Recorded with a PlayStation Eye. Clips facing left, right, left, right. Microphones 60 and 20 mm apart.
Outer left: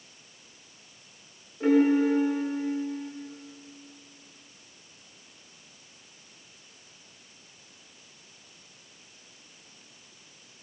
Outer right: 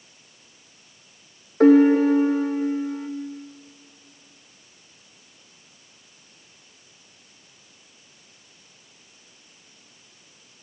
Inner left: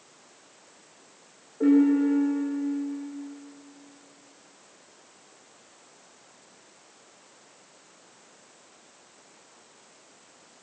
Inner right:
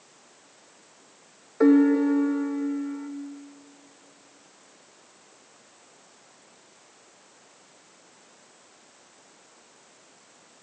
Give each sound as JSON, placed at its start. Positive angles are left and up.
{"t": 1.6, "sound": "a piano", "side_deg": -70, "distance_m": 3.0}